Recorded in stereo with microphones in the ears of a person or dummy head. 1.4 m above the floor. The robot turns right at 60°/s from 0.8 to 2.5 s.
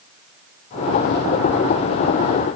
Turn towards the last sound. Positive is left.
No sound to turn to.